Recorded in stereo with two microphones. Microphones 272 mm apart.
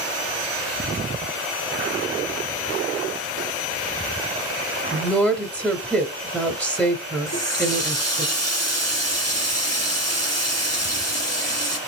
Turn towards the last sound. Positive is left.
turn(degrees=70)  # may be behind; listen again after turning